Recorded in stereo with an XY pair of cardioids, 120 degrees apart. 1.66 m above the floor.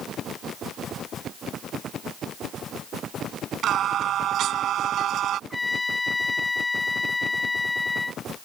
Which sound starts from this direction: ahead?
A trumpet, at 5.5 s.